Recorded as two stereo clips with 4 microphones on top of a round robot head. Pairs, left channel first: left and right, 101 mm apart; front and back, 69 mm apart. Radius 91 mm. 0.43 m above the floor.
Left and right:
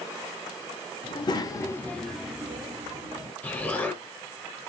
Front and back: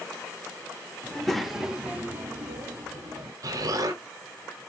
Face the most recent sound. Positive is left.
turn(degrees=160)